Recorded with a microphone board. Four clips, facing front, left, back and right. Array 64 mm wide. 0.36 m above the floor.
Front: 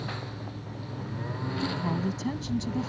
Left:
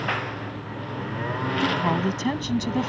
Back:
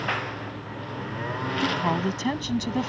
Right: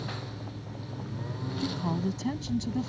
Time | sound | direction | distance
0.0 | a lawn mower | 130° left | ?
1.6 | a woman speaking | 135° left | ?